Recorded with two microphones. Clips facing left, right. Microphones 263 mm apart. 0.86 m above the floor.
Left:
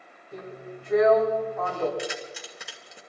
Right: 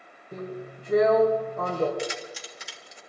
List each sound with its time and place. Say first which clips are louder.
0.3 s a drill: right 3 dB; 40° right (ahead or behind), 4 m
2.0 s keys jangling: right 1 dB; 60° left (ahead or behind), 2.0 m